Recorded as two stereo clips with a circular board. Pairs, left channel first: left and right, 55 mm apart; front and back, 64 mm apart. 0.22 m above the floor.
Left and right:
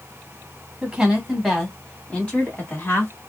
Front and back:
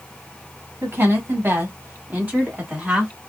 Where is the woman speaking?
160° right, 1.5 m; by 3.1 s 115° left, 1.6 m.